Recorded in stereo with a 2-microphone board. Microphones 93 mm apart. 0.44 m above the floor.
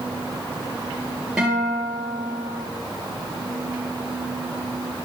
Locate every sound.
1.4 s a guitar: 10° right (ahead or behind), 3.5 m